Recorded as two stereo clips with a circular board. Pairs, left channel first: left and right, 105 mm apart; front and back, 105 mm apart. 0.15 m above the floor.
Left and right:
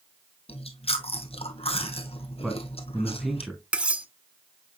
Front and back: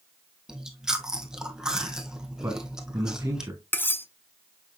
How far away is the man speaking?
About 1.2 m.